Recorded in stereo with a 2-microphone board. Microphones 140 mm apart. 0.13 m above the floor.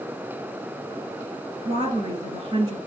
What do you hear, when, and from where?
1.6 s a woman speaking: 35° right (ahead or behind), 2.5 m